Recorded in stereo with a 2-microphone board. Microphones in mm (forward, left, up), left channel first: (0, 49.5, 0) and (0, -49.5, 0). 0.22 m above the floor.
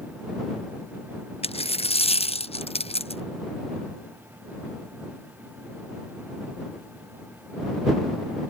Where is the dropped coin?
90° left.